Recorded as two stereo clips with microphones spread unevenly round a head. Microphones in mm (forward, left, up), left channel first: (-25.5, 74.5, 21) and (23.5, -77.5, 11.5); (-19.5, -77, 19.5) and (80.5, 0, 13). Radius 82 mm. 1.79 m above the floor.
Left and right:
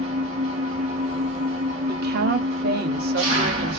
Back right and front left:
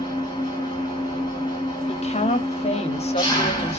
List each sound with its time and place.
0.0 s an engine running: 115° right, 1.5 m
1.9 s a woman speaking: 105° right, 0.8 m